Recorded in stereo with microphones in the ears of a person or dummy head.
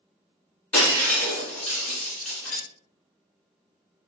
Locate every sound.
0.7 s breaking glass: 5° left (ahead or behind), 1.7 m